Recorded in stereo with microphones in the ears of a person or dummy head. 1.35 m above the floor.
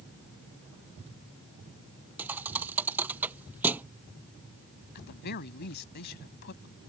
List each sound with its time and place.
2.2 s a thud: 5° right (ahead or behind)
5.0 s a woman speaking: 50° left (ahead or behind)